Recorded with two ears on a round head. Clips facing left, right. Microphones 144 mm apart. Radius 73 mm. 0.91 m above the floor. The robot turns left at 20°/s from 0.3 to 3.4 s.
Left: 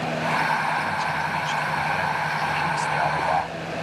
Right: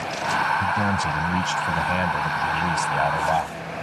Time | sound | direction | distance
0.6 | a man speaking | 105° right | ?